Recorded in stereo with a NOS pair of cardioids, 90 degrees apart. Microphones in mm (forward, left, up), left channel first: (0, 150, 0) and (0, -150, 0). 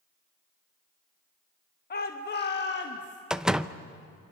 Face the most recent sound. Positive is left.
turn(degrees=0)